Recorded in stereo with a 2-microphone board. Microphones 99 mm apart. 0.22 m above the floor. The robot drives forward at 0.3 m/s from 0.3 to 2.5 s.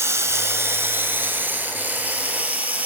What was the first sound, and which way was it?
Running water, 30° right (ahead or behind).